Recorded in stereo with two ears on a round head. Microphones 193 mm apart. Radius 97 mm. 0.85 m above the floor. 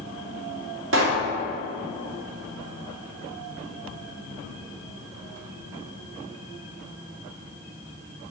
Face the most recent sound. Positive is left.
turn(degrees=-65)  # may be behind; listen again after turning